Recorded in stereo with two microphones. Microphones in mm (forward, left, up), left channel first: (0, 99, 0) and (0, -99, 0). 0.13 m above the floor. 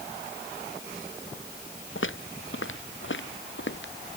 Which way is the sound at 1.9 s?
85° left.